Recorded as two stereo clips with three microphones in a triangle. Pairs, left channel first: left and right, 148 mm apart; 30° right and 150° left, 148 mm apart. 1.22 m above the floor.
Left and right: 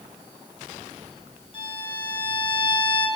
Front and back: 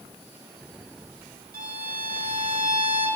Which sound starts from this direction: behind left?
A violin, at 1.5 s.